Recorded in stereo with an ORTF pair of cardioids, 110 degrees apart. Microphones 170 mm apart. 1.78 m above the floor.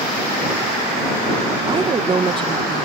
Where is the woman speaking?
30° right.